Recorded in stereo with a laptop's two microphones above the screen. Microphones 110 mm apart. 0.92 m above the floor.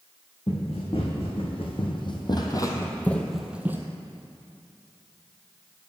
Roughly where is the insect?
No insect in this recording.